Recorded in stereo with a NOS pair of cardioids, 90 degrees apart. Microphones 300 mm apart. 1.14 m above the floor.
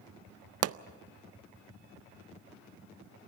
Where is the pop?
55° right, 0.6 m.